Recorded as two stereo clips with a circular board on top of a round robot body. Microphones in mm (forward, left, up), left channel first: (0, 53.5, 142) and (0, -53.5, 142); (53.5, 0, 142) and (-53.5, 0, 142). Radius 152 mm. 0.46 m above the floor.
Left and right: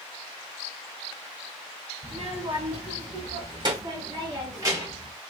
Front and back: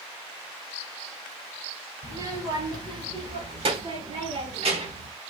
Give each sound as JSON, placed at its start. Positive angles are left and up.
{"t": 2.0, "sound": "a child speaking", "azimuth_deg": -120, "distance_m": 2.0}